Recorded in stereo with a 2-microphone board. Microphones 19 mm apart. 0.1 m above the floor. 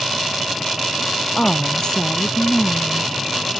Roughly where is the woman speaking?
Left.